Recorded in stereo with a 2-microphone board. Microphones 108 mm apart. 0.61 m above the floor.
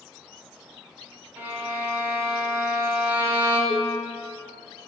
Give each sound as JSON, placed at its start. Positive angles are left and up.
{"t": 1.4, "sound": "a violin", "side_deg": -20, "distance_m": 1.9}
{"t": 3.7, "sound": "dishes clattering", "side_deg": -65, "distance_m": 1.2}